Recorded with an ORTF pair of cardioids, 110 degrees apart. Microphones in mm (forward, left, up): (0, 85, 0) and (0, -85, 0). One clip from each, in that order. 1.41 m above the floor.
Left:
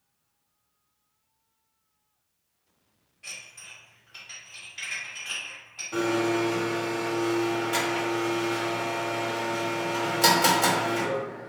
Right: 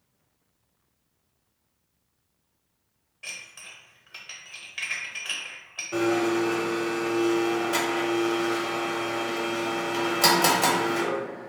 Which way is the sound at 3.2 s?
45° right.